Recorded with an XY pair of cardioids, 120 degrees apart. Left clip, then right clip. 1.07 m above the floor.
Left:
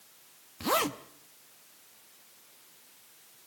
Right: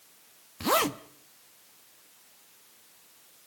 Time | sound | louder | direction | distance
0.6 | a zipper | right 3 dB | 20° right | 0.8 m